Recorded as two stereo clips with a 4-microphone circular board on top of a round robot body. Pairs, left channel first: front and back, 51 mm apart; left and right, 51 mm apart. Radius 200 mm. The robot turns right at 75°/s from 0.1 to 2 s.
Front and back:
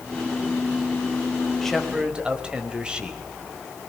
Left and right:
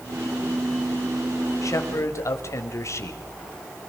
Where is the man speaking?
80° left, 4.5 m; by 3.2 s 110° left, 4.5 m.